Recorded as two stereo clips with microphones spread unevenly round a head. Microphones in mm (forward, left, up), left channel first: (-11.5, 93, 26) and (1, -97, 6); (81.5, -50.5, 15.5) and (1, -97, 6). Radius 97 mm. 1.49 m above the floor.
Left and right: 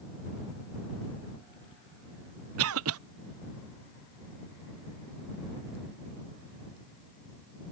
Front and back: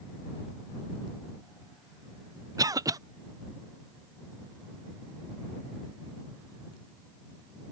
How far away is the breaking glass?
No breaking glass in this recording.